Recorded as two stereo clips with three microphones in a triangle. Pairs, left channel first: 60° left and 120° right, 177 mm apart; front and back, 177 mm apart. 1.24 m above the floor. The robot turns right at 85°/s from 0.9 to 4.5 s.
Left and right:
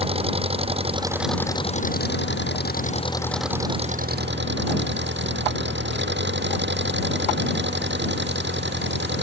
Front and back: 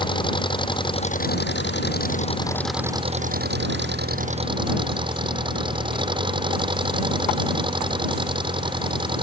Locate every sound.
0.0 s an engine running: 65° right; by 9.2 s 115° right